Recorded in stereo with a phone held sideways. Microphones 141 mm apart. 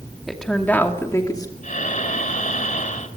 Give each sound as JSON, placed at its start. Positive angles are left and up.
{"t": 0.3, "sound": "a woman speaking", "side_deg": 0, "distance_m": 2.5}
{"t": 1.6, "sound": "breathing", "side_deg": 65, "distance_m": 2.5}